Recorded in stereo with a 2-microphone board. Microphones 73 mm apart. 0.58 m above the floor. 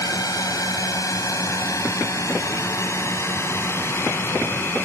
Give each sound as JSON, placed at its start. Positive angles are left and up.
{"t": 0.0, "sound": "a drone", "side_deg": 60}